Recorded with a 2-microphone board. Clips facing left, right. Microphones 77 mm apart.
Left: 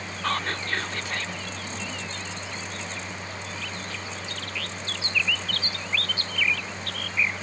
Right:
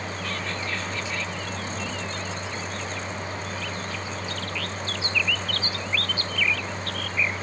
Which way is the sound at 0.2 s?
55° left (ahead or behind).